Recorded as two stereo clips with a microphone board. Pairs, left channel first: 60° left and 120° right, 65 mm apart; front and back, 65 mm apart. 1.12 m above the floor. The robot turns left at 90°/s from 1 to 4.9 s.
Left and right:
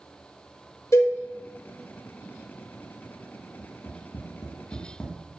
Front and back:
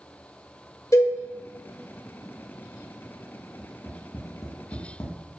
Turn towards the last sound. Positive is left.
turn(degrees=-5)